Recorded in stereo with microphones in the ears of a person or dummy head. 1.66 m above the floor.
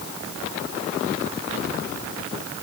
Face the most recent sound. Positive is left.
No sound to turn to.